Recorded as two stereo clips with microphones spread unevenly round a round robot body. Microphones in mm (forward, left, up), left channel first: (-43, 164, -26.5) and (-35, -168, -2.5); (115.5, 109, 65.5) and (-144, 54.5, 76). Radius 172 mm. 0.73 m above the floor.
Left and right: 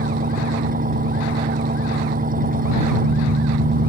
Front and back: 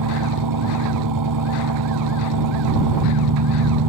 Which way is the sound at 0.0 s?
155° right.